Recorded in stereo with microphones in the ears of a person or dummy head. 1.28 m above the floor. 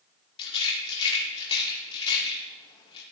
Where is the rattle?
30° left (ahead or behind), 2.5 m.